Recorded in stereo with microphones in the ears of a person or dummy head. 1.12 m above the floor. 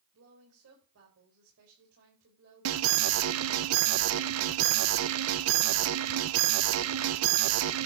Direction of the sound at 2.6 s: 85° right.